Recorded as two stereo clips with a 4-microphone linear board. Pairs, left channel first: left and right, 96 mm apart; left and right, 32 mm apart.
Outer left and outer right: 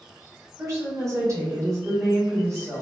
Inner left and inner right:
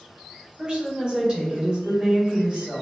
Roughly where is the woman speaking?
Right.